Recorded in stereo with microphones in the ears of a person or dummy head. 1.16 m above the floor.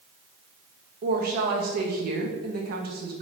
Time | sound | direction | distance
1.0 | a woman speaking | 50° right (ahead or behind) | 0.6 m